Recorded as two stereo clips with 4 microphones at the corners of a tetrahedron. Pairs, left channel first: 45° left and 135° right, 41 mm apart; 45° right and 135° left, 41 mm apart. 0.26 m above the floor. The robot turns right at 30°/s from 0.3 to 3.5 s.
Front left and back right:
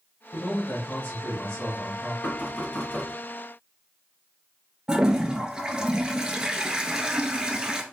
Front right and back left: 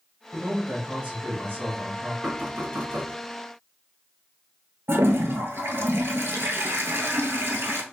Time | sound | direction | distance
0.3 | a man speaking | 70° left | 1.8 m
2.2 | knocking | 75° left | 2 m
4.9 | a toilet flushing | 155° left | 0.8 m